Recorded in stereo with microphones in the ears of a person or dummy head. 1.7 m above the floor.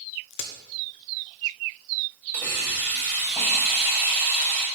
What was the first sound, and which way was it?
A crack, 60° left (ahead or behind).